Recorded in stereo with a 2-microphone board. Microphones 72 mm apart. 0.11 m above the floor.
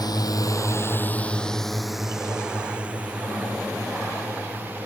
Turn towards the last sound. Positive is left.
turn(degrees=-25)  # may be behind; listen again after turning